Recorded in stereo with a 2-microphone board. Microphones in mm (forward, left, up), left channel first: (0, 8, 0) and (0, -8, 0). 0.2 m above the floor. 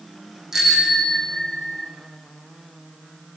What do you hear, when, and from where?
0.5 s a bicycle bell: 25° right (ahead or behind), 7.5 m; by 1.9 s 15° right (ahead or behind), 8 m